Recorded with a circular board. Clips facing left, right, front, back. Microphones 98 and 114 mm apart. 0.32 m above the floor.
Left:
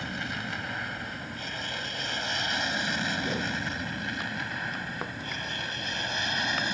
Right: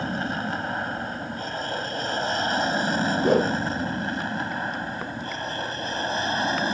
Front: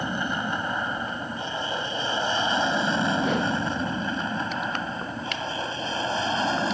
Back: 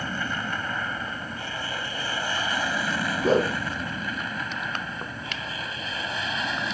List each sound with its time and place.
0.0 s an aircraft: 60° right; by 6.8 s 50° right
3.2 s a whoosh: 125° right